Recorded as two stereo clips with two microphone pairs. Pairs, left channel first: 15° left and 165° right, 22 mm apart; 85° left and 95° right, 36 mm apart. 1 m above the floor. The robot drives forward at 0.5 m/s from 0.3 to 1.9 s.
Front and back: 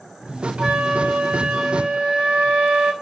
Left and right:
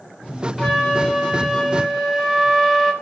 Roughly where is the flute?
Behind.